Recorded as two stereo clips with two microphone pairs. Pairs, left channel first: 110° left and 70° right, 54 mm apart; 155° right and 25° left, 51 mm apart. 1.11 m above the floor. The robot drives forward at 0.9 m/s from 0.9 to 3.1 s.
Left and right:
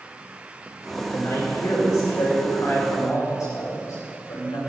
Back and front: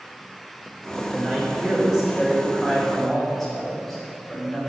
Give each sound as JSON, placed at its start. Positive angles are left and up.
{"t": 1.0, "sound": "a man speaking", "azimuth_deg": 90, "distance_m": 3.5}